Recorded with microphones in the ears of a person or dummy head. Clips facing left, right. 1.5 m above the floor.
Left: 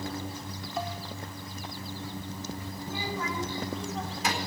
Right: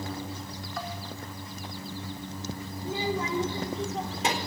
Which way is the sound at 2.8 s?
25° right (ahead or behind).